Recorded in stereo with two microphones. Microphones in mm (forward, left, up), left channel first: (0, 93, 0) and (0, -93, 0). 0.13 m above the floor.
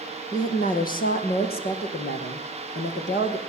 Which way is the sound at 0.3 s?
45° left (ahead or behind).